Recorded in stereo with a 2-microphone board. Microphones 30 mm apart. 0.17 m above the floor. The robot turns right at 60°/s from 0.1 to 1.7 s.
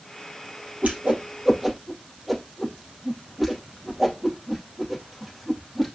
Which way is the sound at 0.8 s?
60° right (ahead or behind).